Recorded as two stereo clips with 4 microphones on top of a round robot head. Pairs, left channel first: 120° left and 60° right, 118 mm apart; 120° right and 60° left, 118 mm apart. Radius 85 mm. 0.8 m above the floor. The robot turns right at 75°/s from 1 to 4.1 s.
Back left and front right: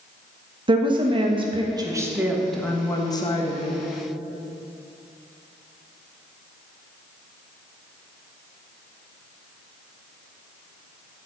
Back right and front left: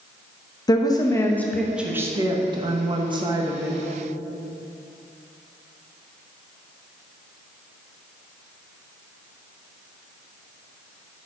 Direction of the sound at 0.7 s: 80° right.